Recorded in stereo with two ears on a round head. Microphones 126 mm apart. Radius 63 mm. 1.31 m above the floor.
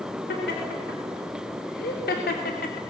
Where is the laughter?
85° left, 4 m; by 2.8 s 70° left (ahead or behind), 2.5 m.